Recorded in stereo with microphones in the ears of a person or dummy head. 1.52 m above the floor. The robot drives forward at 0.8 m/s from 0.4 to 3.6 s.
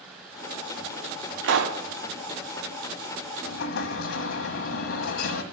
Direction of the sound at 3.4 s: 75° left (ahead or behind).